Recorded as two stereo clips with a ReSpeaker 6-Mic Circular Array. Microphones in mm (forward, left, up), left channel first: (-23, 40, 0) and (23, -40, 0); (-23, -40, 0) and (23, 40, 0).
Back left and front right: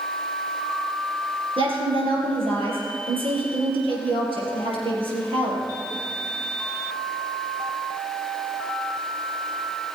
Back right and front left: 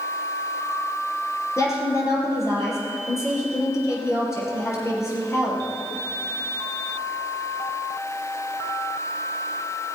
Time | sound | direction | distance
1.6 | a woman speaking | 60° right | 5 m